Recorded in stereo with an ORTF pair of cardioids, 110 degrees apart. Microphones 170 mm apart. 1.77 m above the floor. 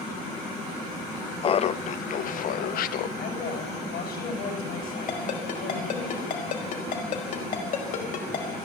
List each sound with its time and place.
1.4 s laughter: 30° left, 0.6 m; by 3.1 s 60° left, 1.5 m
3.2 s a woman speaking: 65° left, 8.5 m
5.1 s a ringtone: 55° left, 5 m